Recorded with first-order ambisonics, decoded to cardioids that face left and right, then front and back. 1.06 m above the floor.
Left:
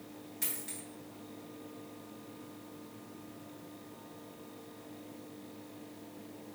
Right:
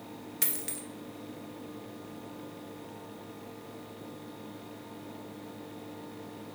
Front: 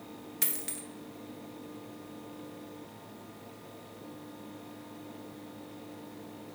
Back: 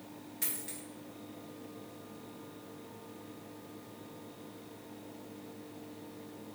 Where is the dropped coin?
50° right, 0.5 m.